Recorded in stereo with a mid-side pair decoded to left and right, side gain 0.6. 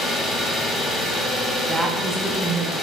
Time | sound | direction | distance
0.0 | an engine running | 40° left | 1.1 m
1.7 | a woman speaking | 10° right | 1.0 m